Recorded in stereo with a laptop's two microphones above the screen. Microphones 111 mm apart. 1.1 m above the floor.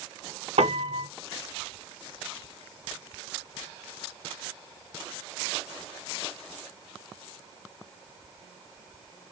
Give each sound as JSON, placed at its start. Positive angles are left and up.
{"t": 0.6, "sound": "a piano", "side_deg": -80, "distance_m": 1.1}